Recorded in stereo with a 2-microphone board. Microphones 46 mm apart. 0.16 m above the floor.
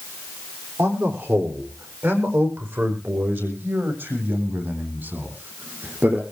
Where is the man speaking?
65° right (ahead or behind), 8.5 m; by 6.2 s 45° right (ahead or behind), 7.5 m.